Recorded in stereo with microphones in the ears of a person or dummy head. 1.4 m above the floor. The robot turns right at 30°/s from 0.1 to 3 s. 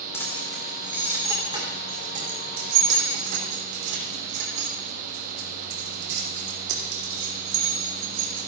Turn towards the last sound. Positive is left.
turn(degrees=-70)  # may be behind; listen again after turning